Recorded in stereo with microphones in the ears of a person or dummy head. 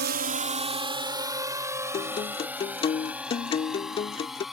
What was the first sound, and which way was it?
A drone, 50° right (ahead or behind).